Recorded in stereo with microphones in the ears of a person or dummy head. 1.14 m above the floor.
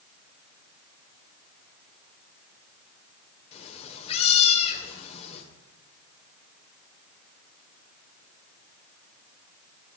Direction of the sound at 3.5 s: 35° left (ahead or behind).